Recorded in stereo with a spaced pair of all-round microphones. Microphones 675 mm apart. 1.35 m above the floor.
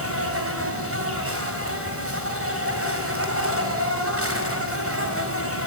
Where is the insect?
20° right (ahead or behind), 4.5 m.